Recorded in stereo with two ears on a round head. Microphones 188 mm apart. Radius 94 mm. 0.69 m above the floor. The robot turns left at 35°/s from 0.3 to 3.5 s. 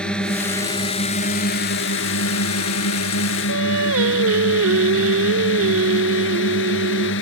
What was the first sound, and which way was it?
A drone, 175° left.